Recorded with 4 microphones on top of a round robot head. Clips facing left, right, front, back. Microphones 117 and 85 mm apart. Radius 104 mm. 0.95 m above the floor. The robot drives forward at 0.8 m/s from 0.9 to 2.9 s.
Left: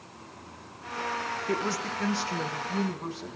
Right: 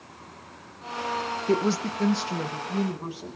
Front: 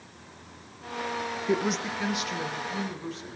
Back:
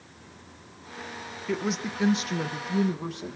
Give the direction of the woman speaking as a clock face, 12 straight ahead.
2 o'clock.